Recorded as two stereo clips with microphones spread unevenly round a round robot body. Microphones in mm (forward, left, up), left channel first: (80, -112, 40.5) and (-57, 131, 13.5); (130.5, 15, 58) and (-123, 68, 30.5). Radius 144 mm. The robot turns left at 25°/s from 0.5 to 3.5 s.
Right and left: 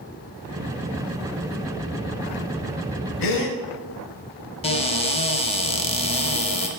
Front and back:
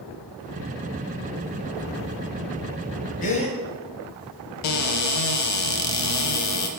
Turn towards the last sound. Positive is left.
turn(degrees=10)